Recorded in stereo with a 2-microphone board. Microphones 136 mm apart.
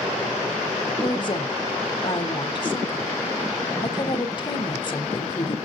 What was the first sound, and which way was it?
A woman speaking, 35° left (ahead or behind).